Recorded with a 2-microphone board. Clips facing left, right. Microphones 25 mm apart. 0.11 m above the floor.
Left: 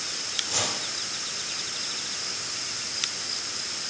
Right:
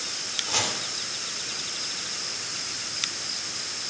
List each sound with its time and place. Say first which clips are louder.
0.5 s chopping: right 3 dB; 20° right (ahead or behind), 7 m